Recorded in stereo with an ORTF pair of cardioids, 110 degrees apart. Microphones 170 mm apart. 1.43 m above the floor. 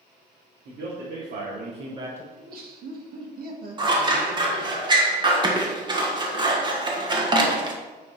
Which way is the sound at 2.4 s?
60° right.